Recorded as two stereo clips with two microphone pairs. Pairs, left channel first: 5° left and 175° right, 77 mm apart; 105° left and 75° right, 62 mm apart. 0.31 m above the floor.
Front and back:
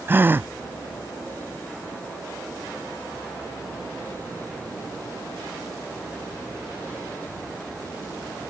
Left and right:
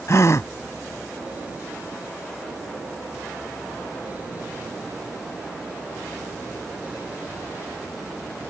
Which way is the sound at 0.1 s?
125° left.